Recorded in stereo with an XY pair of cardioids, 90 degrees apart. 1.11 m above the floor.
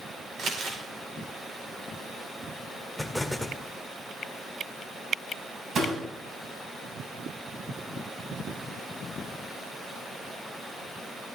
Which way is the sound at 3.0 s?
5° left.